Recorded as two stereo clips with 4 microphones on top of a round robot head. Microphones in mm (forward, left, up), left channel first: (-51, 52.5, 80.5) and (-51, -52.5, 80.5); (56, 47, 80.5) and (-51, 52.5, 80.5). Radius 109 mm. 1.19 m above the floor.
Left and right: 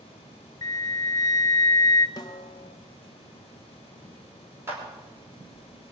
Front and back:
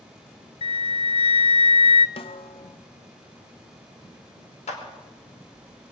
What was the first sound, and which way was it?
A flute, 30° left.